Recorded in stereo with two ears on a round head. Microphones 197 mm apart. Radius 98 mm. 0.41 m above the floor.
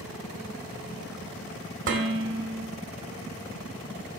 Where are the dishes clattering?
55° right (ahead or behind), 1.3 m.